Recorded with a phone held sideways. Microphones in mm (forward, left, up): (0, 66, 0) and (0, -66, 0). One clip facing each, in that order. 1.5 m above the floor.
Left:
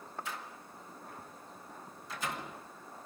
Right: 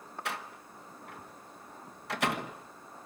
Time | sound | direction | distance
0.2 | a door slam | 70° right (ahead or behind) | 1.3 m